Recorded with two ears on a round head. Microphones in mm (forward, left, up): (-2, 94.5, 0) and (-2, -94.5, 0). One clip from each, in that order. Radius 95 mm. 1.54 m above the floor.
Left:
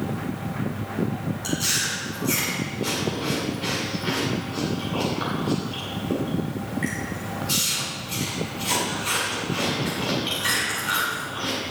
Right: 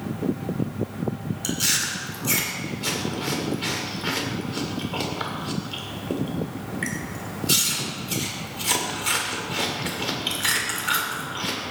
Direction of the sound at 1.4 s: 35° right (ahead or behind).